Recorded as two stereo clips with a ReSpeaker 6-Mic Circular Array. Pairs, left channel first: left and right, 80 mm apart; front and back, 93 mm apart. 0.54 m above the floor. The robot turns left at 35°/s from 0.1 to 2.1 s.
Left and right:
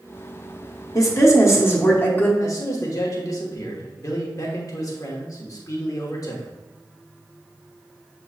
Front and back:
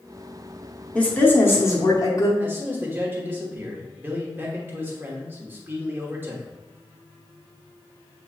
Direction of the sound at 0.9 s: 70° left.